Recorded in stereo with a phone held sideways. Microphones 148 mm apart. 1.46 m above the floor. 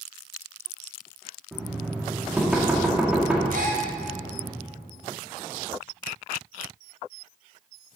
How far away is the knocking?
About 1.8 m.